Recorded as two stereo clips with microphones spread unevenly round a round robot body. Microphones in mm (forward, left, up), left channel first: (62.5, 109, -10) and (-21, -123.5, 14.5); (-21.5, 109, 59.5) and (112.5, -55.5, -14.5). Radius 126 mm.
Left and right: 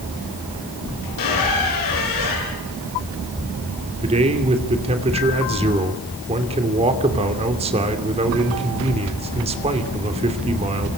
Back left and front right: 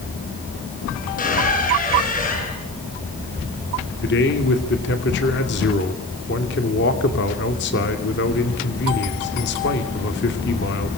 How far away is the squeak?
About 6 m.